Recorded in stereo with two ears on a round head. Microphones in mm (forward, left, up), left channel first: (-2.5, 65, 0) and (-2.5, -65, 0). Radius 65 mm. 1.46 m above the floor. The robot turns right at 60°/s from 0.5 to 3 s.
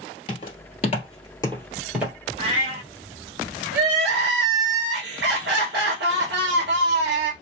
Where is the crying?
80° right, 1.4 m.